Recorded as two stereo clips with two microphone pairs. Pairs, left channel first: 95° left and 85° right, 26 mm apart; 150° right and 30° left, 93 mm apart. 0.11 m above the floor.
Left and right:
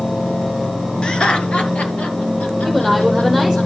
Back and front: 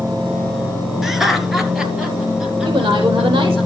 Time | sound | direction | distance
1.0 | laughter | 115° left | 1.6 m
2.6 | a woman speaking | 15° left | 4 m